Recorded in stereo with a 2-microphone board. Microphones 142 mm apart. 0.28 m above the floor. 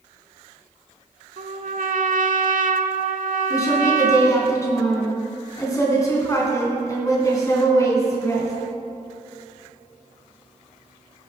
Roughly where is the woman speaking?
Left.